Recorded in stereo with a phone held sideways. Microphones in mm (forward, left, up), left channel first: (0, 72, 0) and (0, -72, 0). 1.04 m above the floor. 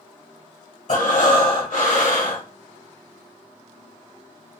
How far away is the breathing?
About 1.0 m.